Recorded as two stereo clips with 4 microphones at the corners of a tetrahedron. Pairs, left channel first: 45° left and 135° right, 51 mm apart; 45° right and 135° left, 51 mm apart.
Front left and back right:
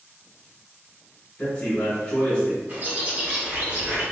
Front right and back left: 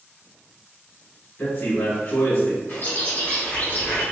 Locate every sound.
1.4 s a man speaking: 5° right, 1.3 m
2.7 s a bird: 85° right, 1.8 m